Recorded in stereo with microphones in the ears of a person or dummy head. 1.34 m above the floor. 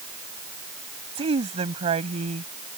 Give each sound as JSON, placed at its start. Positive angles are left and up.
{"t": 1.1, "sound": "a woman speaking", "side_deg": -30}